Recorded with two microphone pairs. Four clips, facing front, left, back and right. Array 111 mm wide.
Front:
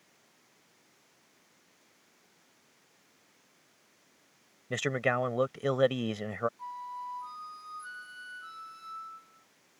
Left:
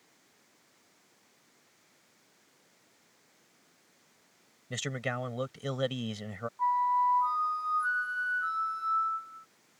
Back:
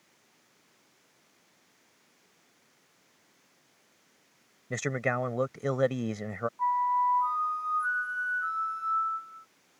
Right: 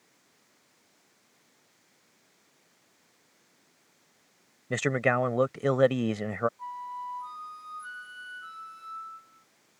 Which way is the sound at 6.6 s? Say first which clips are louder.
Left 11 dB, back 14 dB; 140° left.